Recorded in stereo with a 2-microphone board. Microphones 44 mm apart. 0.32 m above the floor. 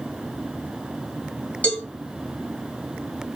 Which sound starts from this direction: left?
A cowbell, at 1.6 s.